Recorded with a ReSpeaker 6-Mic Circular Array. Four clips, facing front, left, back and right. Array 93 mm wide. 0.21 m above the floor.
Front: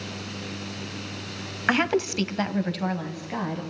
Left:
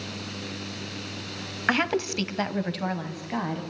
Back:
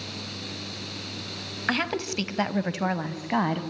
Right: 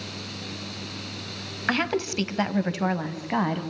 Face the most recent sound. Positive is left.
turn(degrees=-140)